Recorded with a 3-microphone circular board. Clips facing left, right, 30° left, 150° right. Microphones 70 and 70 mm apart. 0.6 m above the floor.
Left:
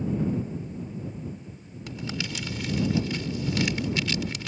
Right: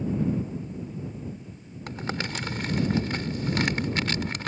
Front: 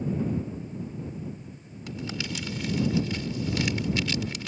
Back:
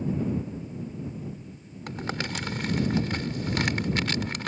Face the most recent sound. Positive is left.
turn(degrees=-125)